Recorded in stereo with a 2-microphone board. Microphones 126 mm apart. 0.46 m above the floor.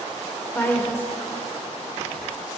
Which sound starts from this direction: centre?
A woman speaking, at 0.6 s.